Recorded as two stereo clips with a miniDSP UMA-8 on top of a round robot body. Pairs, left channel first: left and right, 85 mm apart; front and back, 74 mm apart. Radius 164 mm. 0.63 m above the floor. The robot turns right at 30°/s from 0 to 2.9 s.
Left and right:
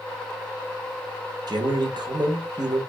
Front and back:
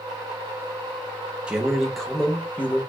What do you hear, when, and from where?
1.5 s a man speaking: 105° right, 1.0 m; by 2.8 s 65° right, 1.0 m